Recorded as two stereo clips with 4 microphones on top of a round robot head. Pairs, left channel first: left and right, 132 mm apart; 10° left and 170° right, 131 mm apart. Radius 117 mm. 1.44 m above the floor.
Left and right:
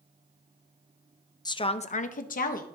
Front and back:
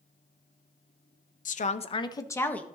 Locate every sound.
1.4 s a woman speaking: 30° left, 0.7 m; by 2.6 s 90° left, 1.1 m